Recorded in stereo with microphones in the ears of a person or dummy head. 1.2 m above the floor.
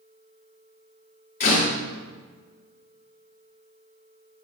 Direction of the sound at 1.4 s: 45° left (ahead or behind).